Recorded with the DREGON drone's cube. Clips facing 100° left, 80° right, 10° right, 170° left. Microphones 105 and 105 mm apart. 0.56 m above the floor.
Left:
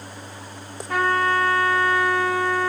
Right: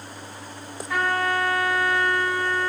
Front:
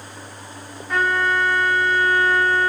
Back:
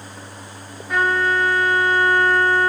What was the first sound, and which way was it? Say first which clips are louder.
A trumpet: left 3 dB, back 1 dB; 90° left.